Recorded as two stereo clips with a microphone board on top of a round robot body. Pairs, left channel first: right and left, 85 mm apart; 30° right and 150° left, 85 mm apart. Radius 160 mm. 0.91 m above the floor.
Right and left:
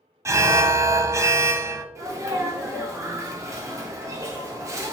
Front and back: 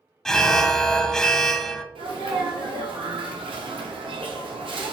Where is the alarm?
50° left, 0.6 m.